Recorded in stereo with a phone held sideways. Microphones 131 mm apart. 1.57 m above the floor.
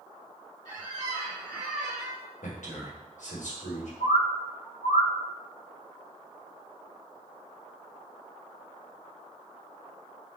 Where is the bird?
80° left, 0.9 m.